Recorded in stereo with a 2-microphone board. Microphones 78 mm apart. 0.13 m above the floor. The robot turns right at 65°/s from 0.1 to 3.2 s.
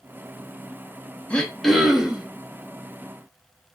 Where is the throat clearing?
150° left, 0.5 m; by 2.3 s 145° right, 0.5 m.